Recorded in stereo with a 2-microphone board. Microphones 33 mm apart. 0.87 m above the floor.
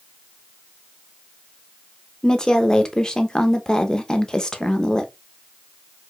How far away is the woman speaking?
About 0.6 m.